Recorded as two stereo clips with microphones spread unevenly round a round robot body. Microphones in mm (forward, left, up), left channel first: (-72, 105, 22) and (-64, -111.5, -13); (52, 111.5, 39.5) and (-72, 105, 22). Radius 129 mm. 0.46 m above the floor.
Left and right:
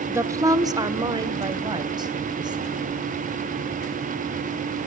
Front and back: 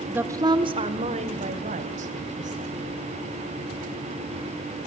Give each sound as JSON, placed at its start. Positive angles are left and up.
{"t": 0.1, "sound": "a woman speaking", "azimuth_deg": -130, "distance_m": 1.2}